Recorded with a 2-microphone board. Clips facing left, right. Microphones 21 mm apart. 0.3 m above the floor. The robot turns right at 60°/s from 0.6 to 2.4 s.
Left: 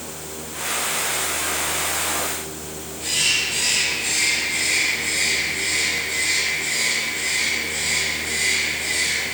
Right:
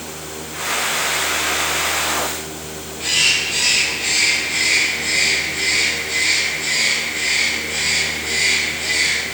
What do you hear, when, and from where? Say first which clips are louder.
3.0 s a bird: right 4 dB; 35° right (ahead or behind), 2.5 m